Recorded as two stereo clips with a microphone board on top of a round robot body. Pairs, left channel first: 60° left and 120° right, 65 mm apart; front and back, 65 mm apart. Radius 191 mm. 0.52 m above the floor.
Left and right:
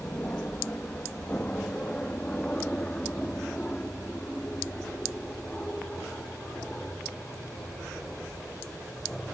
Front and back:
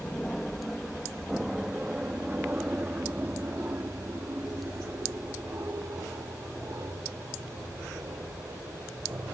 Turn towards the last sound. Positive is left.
turn(degrees=140)